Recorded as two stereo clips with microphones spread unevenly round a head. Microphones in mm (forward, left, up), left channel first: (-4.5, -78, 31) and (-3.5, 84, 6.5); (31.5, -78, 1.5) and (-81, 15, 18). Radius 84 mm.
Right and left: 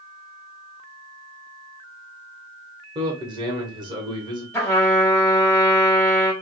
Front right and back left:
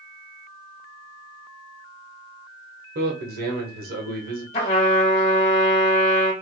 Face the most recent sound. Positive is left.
turn(degrees=-30)